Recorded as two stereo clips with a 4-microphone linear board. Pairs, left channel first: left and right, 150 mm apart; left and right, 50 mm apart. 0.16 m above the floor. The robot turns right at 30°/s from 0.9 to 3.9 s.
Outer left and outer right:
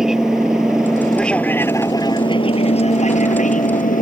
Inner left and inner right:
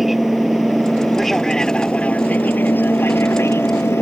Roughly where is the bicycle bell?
I don't hear a bicycle bell.